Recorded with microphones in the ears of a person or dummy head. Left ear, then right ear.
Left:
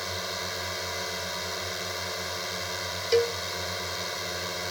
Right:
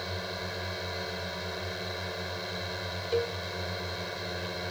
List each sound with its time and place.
0.0 s a drone: 30° left (ahead or behind)
3.1 s a cowbell: 45° left (ahead or behind)